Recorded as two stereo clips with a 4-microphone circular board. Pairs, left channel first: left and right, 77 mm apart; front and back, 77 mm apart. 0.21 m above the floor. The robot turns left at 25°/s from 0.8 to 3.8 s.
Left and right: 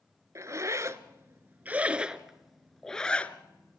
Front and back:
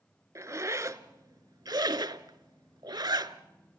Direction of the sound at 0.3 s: 135° right.